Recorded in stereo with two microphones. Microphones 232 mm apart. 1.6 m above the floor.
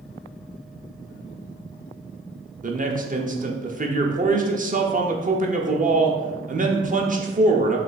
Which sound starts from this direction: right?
A man speaking, at 2.6 s.